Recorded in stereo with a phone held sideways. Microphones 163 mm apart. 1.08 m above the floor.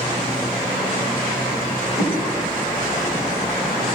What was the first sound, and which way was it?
A whoosh, 25° right (ahead or behind).